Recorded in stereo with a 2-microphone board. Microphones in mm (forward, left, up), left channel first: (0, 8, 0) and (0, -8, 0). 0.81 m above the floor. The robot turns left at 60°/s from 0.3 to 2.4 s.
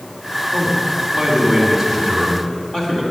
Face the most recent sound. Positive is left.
turn(degrees=165)